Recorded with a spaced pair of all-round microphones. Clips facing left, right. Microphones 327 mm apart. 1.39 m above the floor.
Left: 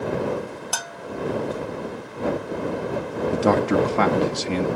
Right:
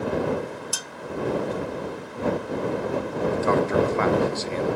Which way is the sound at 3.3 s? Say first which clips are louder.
Left 3 dB; 85° left.